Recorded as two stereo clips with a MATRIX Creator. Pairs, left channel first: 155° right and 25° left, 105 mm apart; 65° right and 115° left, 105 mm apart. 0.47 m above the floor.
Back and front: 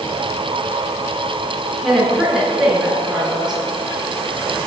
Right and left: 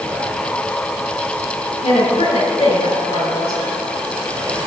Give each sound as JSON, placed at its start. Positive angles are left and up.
{"t": 1.8, "sound": "a woman speaking", "azimuth_deg": -65, "distance_m": 5.0}